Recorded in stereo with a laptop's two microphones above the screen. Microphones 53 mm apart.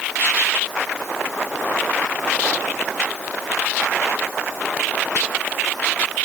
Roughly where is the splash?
I don't hear a splash.